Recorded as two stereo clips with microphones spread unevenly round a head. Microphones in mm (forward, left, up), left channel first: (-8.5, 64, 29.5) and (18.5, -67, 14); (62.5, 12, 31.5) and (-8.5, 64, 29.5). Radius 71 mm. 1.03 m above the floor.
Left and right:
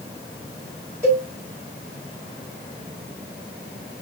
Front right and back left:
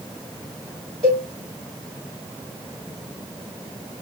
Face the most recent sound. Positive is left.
turn(degrees=-155)